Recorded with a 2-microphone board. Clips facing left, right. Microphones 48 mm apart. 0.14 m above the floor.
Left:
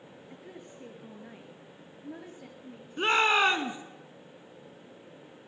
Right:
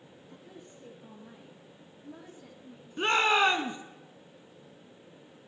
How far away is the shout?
About 1.0 m.